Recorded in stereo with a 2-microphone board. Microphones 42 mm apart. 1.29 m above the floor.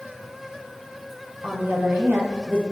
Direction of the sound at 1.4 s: 65° right (ahead or behind).